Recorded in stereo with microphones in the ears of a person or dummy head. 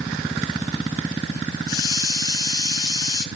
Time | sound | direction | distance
1.7 | a hiss | 20° left (ahead or behind) | 1.5 m